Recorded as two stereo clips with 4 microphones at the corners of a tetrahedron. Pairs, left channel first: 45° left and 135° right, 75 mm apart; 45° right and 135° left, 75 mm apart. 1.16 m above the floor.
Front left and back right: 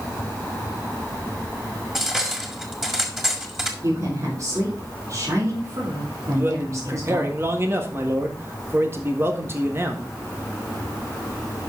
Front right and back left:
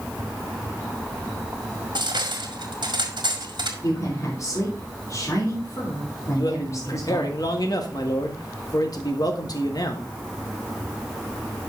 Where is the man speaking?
80° right, 1.7 m.